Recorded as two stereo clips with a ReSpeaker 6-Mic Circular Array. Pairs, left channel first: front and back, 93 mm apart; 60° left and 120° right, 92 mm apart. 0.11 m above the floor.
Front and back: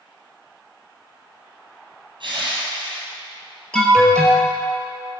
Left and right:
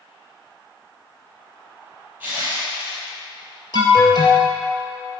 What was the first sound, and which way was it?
Crushing, 165° left.